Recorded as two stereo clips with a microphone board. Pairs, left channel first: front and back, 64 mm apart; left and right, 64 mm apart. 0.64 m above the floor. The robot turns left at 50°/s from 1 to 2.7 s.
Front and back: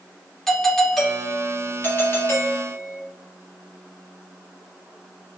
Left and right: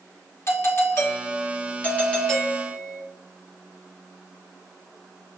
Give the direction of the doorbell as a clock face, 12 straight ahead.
9 o'clock.